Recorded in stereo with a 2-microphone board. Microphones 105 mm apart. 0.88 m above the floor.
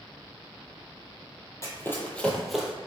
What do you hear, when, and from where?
1.6 s running footsteps: 30° left (ahead or behind), 1.0 m; by 2.7 s 5° right (ahead or behind), 0.9 m